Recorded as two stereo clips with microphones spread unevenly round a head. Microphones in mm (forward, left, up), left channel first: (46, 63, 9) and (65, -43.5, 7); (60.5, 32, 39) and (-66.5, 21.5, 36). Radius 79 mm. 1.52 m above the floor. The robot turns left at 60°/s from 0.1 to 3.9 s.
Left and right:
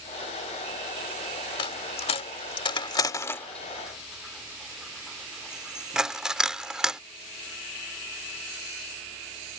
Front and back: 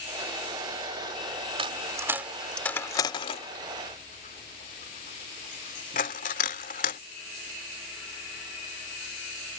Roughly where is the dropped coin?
Behind left.